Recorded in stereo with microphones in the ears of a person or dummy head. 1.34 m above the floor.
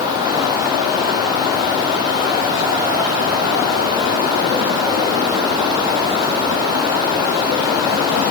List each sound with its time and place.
Only background noise.